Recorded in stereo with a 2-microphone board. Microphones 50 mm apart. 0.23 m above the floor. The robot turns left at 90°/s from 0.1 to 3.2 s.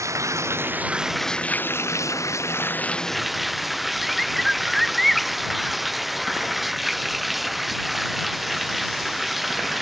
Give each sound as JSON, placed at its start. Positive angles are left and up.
{"t": 0.0, "sound": "running water", "azimuth_deg": -85}
{"t": 4.0, "sound": "a bird", "side_deg": 0}